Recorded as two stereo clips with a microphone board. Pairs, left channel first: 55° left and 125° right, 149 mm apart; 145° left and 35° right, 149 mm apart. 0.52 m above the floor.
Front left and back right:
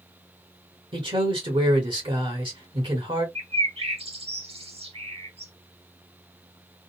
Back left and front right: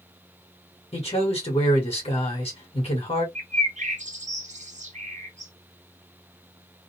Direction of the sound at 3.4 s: 75° right.